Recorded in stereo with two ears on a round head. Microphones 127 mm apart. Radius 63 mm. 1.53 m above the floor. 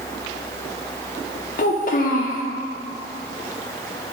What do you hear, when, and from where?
1.6 s a child speaking: 60° left (ahead or behind), 0.6 m